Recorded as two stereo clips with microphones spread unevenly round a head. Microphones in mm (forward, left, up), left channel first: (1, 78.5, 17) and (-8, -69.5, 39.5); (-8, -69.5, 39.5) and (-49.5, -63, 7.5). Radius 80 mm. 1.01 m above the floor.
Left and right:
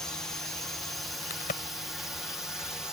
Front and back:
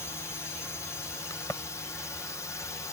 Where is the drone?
30° left; by 2.9 s 10° left.